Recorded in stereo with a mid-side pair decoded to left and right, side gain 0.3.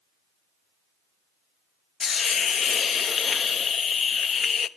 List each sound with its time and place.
2.0 s a hiss: 65° left, 0.8 m